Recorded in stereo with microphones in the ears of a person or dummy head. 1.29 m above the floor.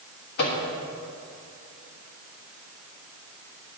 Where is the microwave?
60° left (ahead or behind), 1.5 m.